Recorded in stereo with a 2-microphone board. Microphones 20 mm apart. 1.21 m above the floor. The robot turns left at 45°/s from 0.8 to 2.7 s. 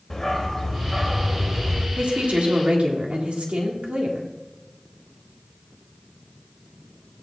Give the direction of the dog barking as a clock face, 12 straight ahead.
11 o'clock.